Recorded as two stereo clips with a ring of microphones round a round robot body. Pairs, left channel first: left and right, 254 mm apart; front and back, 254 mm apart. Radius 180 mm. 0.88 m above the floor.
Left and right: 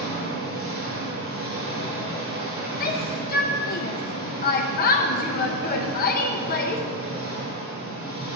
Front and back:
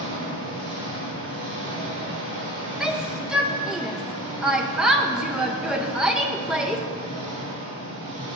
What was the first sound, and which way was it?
An engine running, 145° right.